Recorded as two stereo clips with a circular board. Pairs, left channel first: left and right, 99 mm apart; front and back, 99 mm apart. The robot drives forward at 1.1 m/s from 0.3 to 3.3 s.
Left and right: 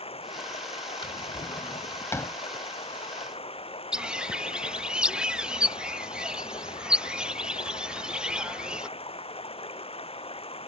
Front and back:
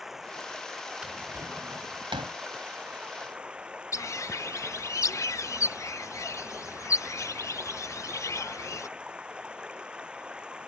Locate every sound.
0.0 s running water: 95° left; by 10.7 s 100° left
1.0 s a drawer: 95° left; by 2.4 s 155° left
3.9 s a bird: 15° right